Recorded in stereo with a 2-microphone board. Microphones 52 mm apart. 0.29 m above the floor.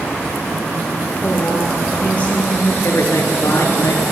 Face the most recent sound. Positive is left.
turn(degrees=60)  # may be behind; listen again after turning